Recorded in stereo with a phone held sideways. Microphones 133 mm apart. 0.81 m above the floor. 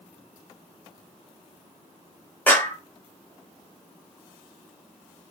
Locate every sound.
2.5 s a clap: 15° left (ahead or behind), 3 m